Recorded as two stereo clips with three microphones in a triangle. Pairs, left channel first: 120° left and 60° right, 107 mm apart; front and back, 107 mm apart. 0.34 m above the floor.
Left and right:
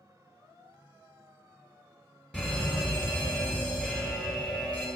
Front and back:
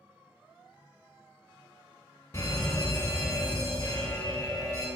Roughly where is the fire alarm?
Ahead left.